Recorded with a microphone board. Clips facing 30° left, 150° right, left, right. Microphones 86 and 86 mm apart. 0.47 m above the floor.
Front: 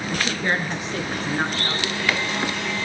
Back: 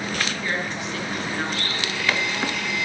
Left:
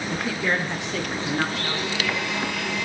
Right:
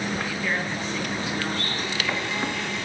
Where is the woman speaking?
80° left, 6 m; by 2.0 s 90° left, 5.5 m.